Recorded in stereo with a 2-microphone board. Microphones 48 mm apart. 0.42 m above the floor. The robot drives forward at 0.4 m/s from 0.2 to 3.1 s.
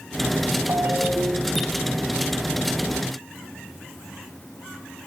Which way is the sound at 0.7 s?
50° right (ahead or behind).